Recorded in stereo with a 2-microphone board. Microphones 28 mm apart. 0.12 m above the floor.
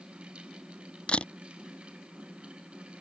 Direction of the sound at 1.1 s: 40° left (ahead or behind).